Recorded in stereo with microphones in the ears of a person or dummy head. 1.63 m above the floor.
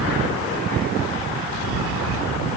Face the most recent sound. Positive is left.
No sound to turn to.